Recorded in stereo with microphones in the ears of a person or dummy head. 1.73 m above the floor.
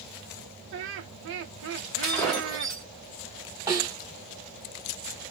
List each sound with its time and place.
0.7 s laughter: 70° right (ahead or behind), 0.8 m
2.0 s breaking glass: centre (ahead or behind), 1.0 m
3.7 s a snare drum: 20° right (ahead or behind), 1.9 m